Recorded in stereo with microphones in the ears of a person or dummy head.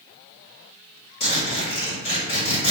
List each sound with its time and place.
1.2 s a zipper: 60° left (ahead or behind), 1.4 m